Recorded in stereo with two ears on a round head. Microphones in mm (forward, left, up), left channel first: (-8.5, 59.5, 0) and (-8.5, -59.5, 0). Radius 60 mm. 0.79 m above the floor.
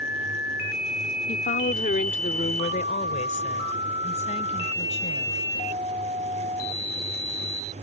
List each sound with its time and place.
1.3 s a woman speaking: 70° left (ahead or behind); by 5.4 s 55° left (ahead or behind)